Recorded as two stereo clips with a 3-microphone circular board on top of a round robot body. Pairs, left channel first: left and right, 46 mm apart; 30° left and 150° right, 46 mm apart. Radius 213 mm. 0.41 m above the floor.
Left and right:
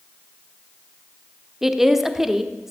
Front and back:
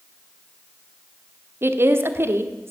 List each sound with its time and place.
1.6 s a woman speaking: 170° right, 1.6 m